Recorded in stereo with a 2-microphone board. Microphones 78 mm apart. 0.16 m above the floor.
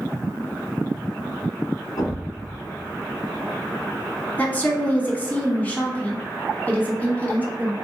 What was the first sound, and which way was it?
A thud, 60° left (ahead or behind).